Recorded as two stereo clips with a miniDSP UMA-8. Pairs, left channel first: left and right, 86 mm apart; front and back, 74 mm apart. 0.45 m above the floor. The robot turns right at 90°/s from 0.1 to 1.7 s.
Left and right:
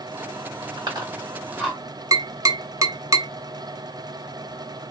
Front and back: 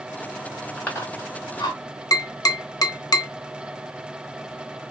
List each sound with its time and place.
0.8 s chewing: 75° right, 1.7 m; by 1.8 s 10° left, 1.7 m
2.1 s tapping: 40° right, 0.8 m